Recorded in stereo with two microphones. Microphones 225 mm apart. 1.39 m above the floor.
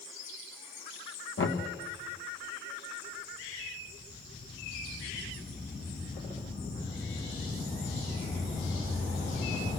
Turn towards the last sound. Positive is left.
turn(degrees=65)  # may be behind; listen again after turning